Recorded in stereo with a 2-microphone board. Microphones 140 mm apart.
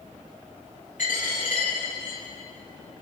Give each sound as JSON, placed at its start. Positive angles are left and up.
{"t": 1.0, "sound": "a dropped coin", "side_deg": 65, "distance_m": 5.5}